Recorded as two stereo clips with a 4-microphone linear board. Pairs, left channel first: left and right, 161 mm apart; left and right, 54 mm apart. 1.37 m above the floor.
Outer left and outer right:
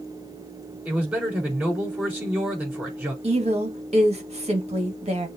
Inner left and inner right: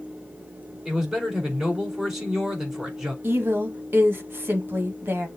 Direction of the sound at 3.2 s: 40° right (ahead or behind).